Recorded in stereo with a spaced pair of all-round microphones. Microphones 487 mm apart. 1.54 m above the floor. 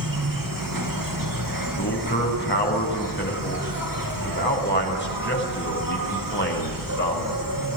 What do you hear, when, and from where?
0.0 s an insect: 40° right (ahead or behind), 2 m
1.8 s a man speaking: 25° left (ahead or behind), 6.5 m